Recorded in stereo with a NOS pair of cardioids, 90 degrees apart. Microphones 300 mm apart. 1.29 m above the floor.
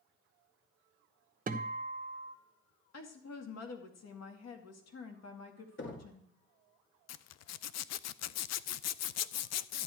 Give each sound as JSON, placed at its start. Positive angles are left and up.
{"t": 1.5, "sound": "a guitar", "azimuth_deg": -25, "distance_m": 1.0}
{"t": 2.9, "sound": "a woman speaking", "azimuth_deg": 60, "distance_m": 2.5}
{"t": 5.8, "sound": "knocking", "azimuth_deg": 40, "distance_m": 2.5}
{"t": 7.1, "sound": "a zipper", "azimuth_deg": 65, "distance_m": 0.5}